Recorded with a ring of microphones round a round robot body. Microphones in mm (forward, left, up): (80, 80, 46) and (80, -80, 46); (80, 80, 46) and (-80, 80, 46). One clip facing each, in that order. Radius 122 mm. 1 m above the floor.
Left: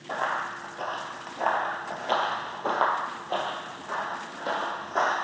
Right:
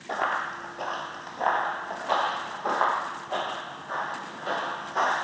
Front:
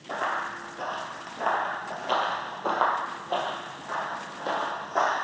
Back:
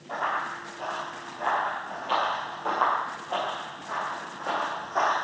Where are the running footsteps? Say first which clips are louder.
Right 1 dB, even; 25° right, 1.3 m; by 5.1 s 55° left, 3 m.